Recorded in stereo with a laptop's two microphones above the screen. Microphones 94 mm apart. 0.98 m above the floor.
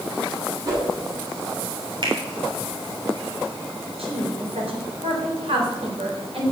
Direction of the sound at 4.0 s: 70° right (ahead or behind).